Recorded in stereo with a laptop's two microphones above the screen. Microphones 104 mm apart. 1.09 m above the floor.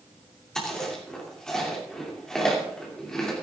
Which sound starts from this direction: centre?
Chewing, at 0.6 s.